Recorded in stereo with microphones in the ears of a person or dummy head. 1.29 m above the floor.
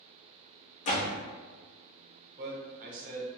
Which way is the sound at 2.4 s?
45° right (ahead or behind).